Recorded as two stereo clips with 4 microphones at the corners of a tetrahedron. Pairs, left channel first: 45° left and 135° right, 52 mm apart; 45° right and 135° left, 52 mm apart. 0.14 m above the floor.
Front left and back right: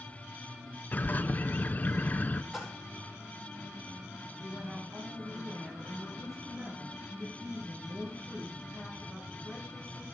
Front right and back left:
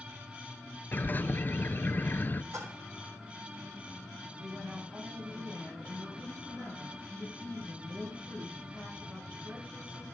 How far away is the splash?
About 2.5 m.